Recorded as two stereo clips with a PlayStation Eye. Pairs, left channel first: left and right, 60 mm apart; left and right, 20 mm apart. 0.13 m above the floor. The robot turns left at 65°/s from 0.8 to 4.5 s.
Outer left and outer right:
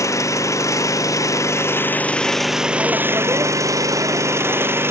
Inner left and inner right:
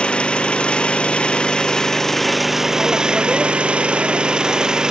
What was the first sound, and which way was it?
An engine running, 105° left.